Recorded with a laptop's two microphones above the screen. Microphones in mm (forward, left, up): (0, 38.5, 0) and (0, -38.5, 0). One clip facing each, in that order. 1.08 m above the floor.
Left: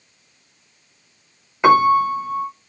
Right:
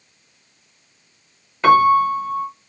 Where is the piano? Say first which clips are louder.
Right 1 dB; 15° left (ahead or behind), 0.7 m.